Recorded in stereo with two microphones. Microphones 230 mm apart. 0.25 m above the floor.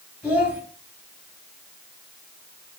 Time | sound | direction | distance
0.2 | a child speaking | centre (ahead or behind) | 0.8 m